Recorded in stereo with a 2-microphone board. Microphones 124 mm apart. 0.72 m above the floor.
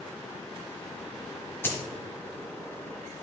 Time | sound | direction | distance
1.6 | a dropped coin | 20° left (ahead or behind) | 1.6 m